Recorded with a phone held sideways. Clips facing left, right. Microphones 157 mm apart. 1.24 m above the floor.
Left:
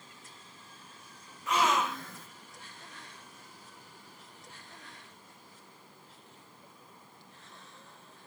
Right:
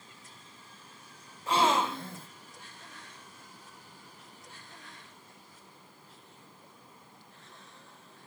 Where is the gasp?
30° right (ahead or behind), 0.5 m.